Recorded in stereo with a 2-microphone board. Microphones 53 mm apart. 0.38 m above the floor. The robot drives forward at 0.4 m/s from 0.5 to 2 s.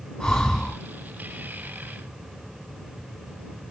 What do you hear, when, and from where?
0.2 s breathing: 10° left (ahead or behind), 1.8 m